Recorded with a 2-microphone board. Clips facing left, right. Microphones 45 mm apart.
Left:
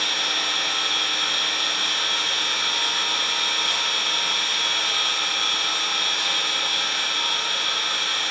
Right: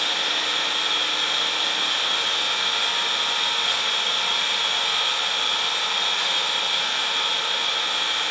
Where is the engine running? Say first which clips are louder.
Even; 50° right (ahead or behind), 1.8 m.